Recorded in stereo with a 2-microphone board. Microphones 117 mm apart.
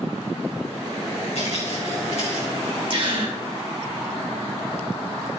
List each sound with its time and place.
1.4 s footsteps: 70° left (ahead or behind), 4 m; by 2.5 s 60° left (ahead or behind), 4 m
2.9 s a gasp: 45° right (ahead or behind), 2.5 m